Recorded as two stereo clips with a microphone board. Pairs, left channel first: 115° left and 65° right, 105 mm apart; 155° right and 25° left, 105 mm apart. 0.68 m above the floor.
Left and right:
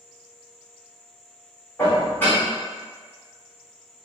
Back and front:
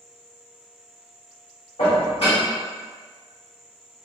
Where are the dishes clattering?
175° right, 1.2 m.